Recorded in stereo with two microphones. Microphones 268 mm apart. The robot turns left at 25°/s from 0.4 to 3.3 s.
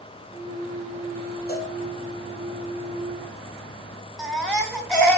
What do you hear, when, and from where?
1.5 s a cowbell: 35° left (ahead or behind), 2 m; by 1.7 s 40° left (ahead or behind), 2 m
4.2 s a baby crying: 5° left (ahead or behind), 1.2 m